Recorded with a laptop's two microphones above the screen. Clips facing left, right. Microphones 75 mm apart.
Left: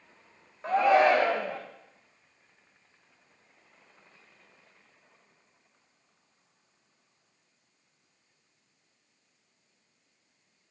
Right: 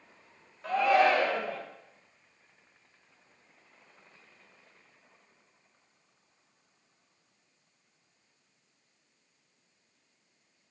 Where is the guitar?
No guitar in this recording.